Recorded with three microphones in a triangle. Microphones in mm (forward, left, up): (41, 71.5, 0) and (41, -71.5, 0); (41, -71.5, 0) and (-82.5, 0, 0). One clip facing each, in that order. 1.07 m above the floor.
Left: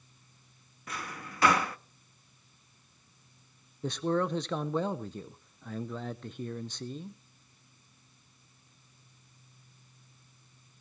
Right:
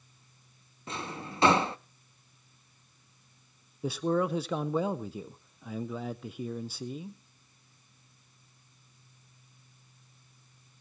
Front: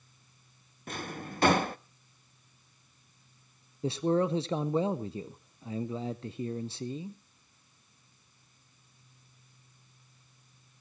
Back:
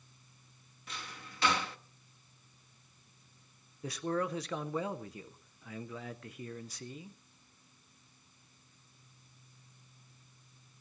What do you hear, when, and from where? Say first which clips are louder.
0.9 s a drawer: right 3 dB, front 10 dB; 35° right, 0.5 m
3.8 s a man speaking: right 1 dB, front 7 dB; 15° right, 0.6 m